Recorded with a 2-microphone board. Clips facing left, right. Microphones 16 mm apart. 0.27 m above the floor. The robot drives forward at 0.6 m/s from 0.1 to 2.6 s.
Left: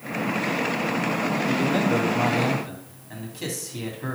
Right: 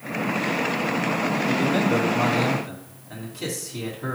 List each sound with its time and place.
1.5 s a man speaking: 5° left (ahead or behind), 1.7 m